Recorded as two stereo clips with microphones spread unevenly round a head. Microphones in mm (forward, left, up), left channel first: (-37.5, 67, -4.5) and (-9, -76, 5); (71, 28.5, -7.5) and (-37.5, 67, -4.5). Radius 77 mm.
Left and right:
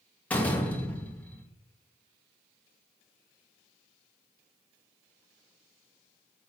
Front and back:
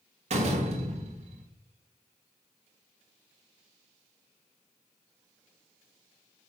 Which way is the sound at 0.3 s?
175° right.